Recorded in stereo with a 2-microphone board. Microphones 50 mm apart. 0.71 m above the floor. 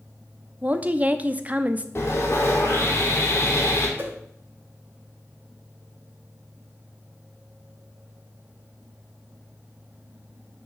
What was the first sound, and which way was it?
A woman speaking, 30° right (ahead or behind).